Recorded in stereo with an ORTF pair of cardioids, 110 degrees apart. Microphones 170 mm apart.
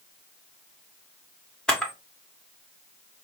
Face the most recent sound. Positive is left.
turn(degrees=5)